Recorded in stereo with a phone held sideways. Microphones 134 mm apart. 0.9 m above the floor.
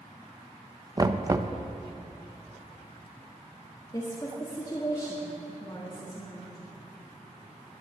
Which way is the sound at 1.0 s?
25° right (ahead or behind).